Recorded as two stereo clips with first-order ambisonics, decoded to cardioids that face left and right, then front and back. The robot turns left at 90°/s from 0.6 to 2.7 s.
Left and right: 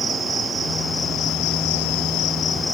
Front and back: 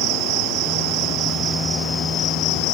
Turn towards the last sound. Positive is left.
turn(degrees=10)